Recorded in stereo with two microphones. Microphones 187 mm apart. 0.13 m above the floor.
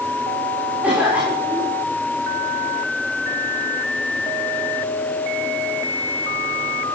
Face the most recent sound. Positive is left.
turn(degrees=-5)  # may be behind; listen again after turning